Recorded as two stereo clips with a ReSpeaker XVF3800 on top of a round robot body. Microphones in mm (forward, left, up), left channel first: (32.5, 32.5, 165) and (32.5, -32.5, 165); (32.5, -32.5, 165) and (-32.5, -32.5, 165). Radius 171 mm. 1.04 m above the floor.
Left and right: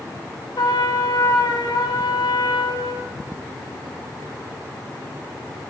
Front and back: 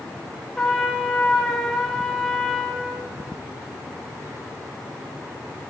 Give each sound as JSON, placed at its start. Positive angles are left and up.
{"t": 0.6, "sound": "a trumpet", "azimuth_deg": 80, "distance_m": 6.0}